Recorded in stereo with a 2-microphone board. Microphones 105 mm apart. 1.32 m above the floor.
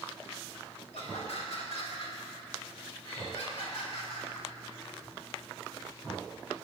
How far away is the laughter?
About 3 m.